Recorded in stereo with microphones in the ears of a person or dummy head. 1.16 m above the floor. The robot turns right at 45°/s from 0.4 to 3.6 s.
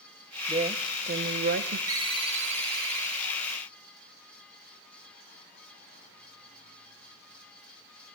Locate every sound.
0.5 s a woman speaking: 155° right, 0.9 m; by 1.8 s 95° right, 0.9 m
1.9 s a ringtone: 155° right, 0.7 m; by 3.3 s 95° right, 0.7 m